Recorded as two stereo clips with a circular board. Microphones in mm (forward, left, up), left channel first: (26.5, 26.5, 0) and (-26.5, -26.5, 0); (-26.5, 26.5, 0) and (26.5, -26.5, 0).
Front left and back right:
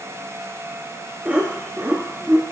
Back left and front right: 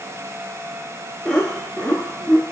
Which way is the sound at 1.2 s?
175° right.